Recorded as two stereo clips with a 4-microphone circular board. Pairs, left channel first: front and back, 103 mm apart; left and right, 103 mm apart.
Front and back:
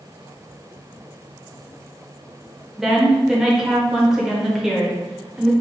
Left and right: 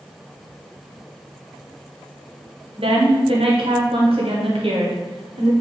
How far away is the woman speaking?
About 0.8 m.